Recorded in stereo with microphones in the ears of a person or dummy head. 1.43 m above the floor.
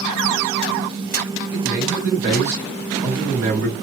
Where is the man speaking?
10° right (ahead or behind), 1.6 m.